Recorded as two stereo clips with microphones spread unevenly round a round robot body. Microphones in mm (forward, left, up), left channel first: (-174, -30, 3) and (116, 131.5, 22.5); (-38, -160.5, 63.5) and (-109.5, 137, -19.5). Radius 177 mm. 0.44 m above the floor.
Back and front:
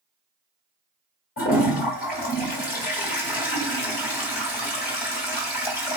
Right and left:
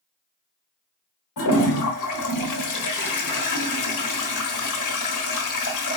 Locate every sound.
1.4 s a toilet flushing: 95° right, 1.2 m